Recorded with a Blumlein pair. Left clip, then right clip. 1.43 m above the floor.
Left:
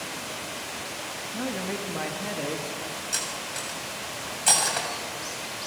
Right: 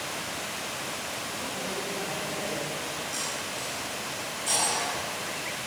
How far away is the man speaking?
About 2 m.